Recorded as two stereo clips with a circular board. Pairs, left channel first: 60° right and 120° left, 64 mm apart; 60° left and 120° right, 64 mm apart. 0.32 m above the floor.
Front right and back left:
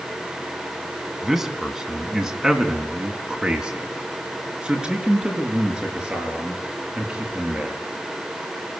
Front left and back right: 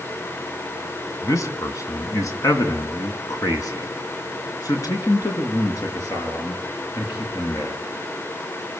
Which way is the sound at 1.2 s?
35° left.